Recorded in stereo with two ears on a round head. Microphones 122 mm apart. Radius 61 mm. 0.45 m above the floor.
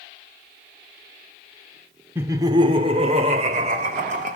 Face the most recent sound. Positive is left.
turn(degrees=-65)  # may be behind; listen again after turning